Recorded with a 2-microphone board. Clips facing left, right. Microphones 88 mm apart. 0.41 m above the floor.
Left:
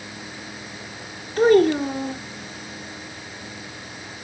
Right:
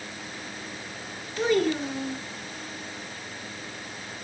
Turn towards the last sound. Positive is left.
turn(degrees=45)  # may be behind; listen again after turning